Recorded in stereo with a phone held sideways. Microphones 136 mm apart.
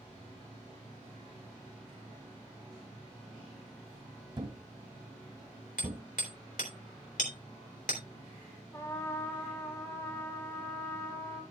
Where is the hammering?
80° left, 3 m.